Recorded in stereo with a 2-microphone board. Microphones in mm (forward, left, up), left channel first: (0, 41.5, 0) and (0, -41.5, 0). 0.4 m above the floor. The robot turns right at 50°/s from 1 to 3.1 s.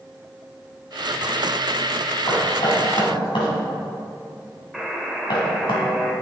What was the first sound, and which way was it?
Knocking, 55° left (ahead or behind).